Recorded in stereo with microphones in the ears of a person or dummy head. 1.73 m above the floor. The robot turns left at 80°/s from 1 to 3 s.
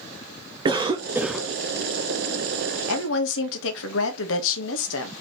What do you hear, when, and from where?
0.7 s a cough: 150° right, 0.5 m; by 1.5 s 170° left, 0.5 m
2.9 s a woman speaking: 80° left, 1.1 m; by 5.1 s 75° left (ahead or behind), 1.1 m